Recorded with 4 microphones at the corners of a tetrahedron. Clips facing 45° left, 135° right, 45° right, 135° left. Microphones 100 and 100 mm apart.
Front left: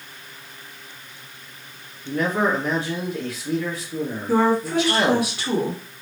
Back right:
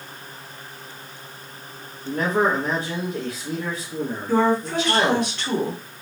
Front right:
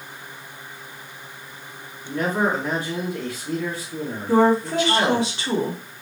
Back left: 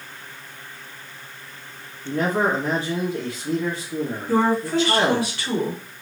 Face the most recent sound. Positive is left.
turn(degrees=-30)